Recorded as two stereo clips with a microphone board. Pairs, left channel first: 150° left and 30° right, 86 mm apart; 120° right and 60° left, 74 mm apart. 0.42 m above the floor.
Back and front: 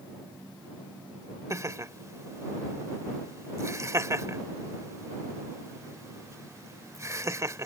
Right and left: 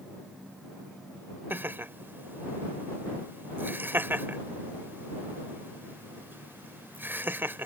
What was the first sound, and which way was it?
Laughter, 10° left.